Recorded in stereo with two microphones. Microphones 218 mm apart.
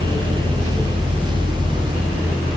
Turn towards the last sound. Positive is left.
No sound to turn to.